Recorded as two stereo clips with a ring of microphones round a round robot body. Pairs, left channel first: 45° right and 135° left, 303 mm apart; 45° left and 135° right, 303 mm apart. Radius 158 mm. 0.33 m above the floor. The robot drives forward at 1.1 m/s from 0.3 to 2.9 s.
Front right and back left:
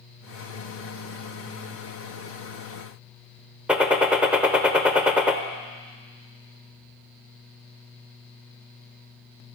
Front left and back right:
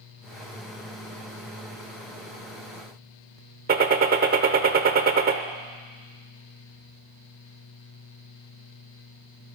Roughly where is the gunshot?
Behind right.